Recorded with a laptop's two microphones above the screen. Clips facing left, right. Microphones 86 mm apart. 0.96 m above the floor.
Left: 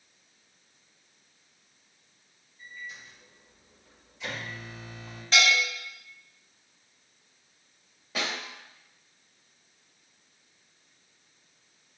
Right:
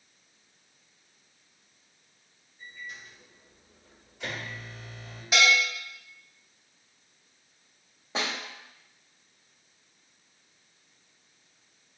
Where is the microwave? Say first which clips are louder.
Even; 55° right (ahead or behind), 2 m.